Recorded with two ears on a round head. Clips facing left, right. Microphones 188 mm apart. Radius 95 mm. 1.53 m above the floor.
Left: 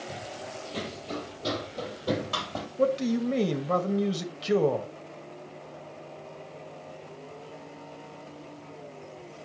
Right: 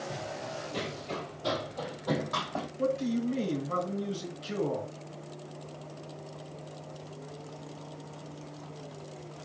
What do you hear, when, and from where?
0.1 s running footsteps: centre (ahead or behind), 2.5 m; by 2.7 s 45° left (ahead or behind), 2 m
2.8 s a man speaking: 80° left, 1.3 m